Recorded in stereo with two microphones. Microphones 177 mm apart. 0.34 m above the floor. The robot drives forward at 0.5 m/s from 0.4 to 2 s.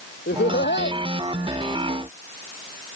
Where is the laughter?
80° left.